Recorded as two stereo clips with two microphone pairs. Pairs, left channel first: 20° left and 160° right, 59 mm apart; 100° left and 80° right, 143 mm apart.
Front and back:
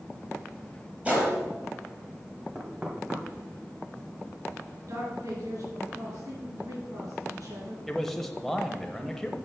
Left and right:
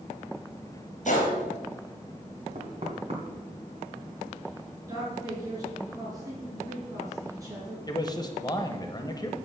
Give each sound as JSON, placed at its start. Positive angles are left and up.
{"t": 1.1, "sound": "a gunshot", "azimuth_deg": 130, "distance_m": 3.5}
{"t": 2.5, "sound": "knocking", "azimuth_deg": -95, "distance_m": 1.6}
{"t": 4.9, "sound": "a man speaking", "azimuth_deg": -145, "distance_m": 4.5}
{"t": 7.9, "sound": "a man speaking", "azimuth_deg": 100, "distance_m": 1.1}